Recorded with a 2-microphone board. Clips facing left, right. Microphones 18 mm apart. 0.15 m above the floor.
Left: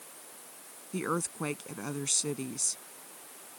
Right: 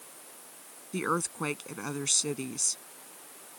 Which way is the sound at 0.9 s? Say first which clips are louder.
Right 2 dB; 20° right (ahead or behind).